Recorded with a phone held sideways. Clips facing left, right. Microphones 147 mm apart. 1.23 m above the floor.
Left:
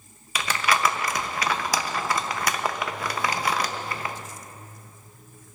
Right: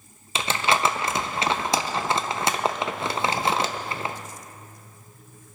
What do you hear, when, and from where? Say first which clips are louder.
0.3 s crumpling: right 1 dB; 25° right (ahead or behind), 0.5 m